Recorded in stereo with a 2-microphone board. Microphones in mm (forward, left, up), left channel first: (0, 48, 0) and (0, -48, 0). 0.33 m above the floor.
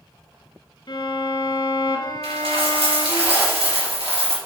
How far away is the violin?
About 1.3 m.